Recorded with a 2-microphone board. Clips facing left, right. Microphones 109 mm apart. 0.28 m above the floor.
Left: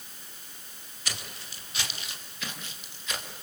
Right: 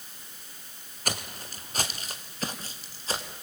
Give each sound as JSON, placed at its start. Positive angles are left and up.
{"t": 1.1, "sound": "footsteps", "side_deg": -45, "distance_m": 3.0}